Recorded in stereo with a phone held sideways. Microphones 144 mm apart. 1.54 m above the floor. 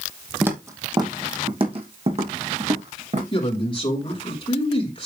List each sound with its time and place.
0.4 s footsteps: 10° right (ahead or behind), 2 m; by 3.2 s 55° right (ahead or behind), 5.5 m
3.3 s a man speaking: 35° left (ahead or behind), 5.5 m